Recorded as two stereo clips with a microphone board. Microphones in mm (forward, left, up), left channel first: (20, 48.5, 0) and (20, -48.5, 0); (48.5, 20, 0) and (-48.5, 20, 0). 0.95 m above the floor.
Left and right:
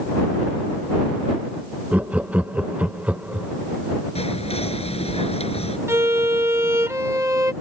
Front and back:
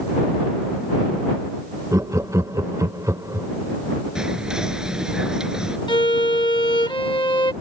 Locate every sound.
1.9 s laughter: 155° right
4.2 s whispering: 95° left
5.9 s a violin: 30° right